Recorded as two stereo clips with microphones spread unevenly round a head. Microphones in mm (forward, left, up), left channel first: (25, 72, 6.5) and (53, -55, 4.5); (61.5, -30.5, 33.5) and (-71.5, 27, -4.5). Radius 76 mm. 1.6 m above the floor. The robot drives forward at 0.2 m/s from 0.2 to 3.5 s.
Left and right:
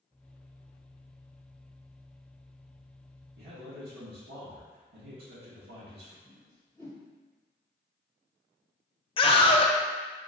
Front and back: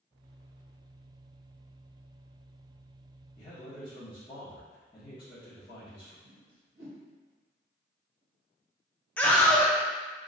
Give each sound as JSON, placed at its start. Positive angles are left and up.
{"t": 3.4, "sound": "a man speaking", "azimuth_deg": -95, "distance_m": 1.8}
{"t": 6.2, "sound": "a whoosh", "azimuth_deg": 175, "distance_m": 1.3}
{"t": 9.2, "sound": "a scream", "azimuth_deg": 55, "distance_m": 0.6}